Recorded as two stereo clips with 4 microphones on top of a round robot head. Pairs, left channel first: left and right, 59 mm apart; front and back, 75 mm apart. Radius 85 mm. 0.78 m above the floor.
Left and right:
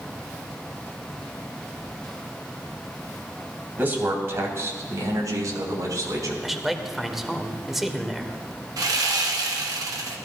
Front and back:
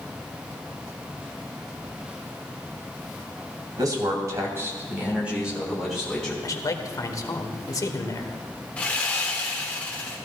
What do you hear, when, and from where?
3.8 s a man speaking: 150° right, 3 m; by 6.3 s 85° right, 4 m
6.4 s a man speaking: 5° right, 1.5 m
8.8 s sawing: 75° right, 1.0 m